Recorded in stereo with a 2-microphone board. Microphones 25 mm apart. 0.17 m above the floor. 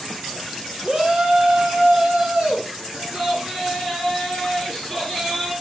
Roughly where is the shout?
Right.